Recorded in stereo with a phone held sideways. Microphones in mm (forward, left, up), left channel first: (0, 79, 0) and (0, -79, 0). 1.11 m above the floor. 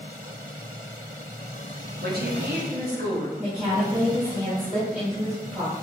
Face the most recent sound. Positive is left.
turn(degrees=-15)  # may be behind; listen again after turning